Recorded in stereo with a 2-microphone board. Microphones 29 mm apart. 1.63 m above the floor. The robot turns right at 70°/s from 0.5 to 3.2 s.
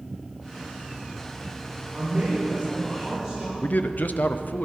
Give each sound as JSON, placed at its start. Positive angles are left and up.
{"t": 1.9, "sound": "a man speaking", "azimuth_deg": -75, "distance_m": 5.0}
{"t": 3.6, "sound": "a man speaking", "side_deg": 85, "distance_m": 0.6}